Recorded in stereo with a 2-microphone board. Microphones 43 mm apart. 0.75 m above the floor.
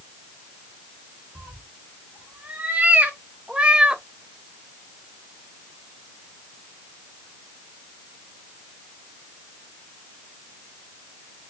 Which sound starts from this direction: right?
A cat meowing, at 1.4 s.